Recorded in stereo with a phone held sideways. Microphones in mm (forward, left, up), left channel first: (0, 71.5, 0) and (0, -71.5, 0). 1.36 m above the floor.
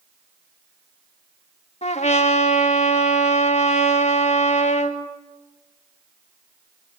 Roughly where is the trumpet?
Left.